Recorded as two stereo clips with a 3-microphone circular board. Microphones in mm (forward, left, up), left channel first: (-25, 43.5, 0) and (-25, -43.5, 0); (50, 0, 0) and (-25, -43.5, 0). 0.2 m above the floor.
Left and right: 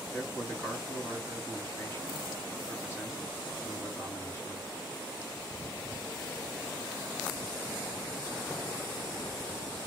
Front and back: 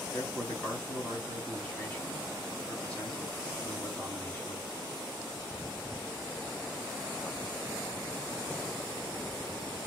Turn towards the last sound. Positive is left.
turn(degrees=85)